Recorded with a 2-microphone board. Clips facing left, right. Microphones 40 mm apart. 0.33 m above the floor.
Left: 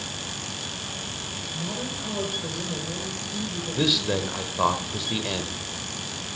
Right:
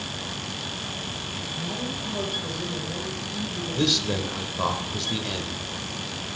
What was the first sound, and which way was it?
A woman speaking, 55° left (ahead or behind).